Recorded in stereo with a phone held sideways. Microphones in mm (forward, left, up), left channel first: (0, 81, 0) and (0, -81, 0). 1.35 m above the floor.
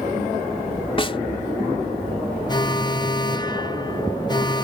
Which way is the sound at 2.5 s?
25° left (ahead or behind).